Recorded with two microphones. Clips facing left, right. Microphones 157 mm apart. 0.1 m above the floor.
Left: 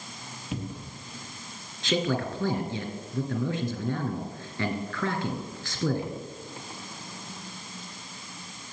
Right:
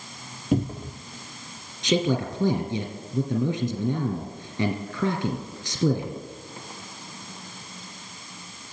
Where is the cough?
I don't hear a cough.